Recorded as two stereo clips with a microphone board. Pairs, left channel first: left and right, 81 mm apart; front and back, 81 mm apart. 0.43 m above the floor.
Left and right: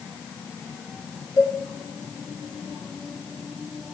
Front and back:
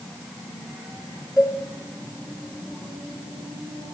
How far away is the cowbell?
About 4 m.